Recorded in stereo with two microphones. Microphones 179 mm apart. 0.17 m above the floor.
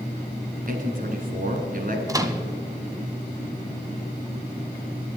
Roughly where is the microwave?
Centre.